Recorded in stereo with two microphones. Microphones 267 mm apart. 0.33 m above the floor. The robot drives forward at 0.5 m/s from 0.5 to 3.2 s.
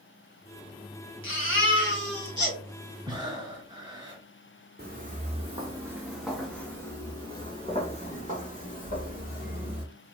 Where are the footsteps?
35° right (ahead or behind), 1.4 m; by 9.8 s 35° left (ahead or behind), 3.5 m.